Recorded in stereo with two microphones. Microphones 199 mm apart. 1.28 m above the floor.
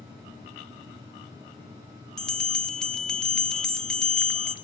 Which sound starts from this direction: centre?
A bell, at 2.2 s.